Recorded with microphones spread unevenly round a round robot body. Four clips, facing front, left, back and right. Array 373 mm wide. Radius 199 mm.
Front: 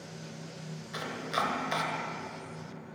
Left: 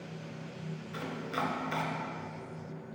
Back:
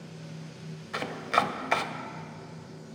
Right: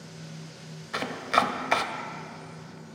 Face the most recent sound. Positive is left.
turn(degrees=-95)